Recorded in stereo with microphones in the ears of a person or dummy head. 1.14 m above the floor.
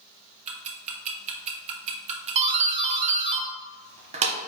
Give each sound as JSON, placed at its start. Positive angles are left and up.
{"t": 0.5, "sound": "ticking", "side_deg": -30, "distance_m": 0.8}
{"t": 2.4, "sound": "a doorbell", "side_deg": -30, "distance_m": 0.6}